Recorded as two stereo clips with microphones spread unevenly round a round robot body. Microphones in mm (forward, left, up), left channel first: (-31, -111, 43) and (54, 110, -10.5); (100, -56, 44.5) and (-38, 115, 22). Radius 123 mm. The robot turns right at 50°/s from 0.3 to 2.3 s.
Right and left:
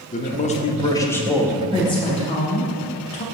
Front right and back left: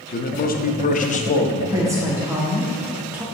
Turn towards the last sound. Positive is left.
turn(degrees=-165)